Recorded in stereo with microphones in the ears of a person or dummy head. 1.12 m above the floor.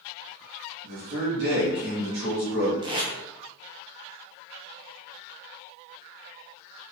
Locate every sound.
0.8 s a man speaking: 60° right (ahead or behind), 1.8 m
2.8 s tape being pulled: 25° right (ahead or behind), 1.0 m